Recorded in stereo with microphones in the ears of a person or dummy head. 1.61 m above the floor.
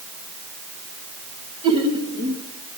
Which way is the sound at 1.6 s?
30° right (ahead or behind).